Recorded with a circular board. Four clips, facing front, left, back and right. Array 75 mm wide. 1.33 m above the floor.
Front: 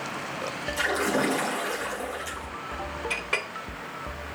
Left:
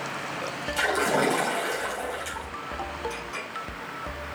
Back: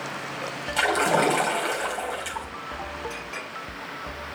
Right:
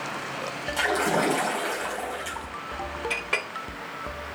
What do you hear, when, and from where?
0.8 s a splash: straight behind, 4 m
3.1 s a clink: 50° right, 2 m